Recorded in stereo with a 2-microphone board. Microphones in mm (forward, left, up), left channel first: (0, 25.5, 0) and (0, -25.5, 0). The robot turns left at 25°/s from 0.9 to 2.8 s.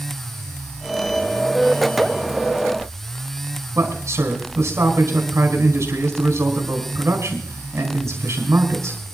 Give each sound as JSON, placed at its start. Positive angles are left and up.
{"t": 3.8, "sound": "a man speaking", "side_deg": -70, "distance_m": 4.5}